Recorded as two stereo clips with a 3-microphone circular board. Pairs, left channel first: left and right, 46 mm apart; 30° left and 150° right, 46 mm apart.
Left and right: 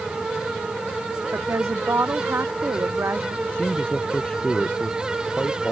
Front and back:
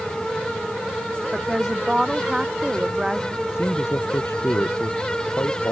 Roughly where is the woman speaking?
Right.